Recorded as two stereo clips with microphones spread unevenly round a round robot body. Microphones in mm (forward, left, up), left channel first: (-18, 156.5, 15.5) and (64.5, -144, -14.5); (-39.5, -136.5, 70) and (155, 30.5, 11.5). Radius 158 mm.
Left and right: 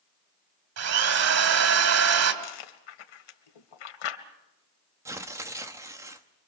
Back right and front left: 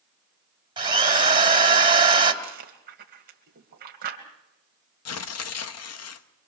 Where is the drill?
35° right, 3 m.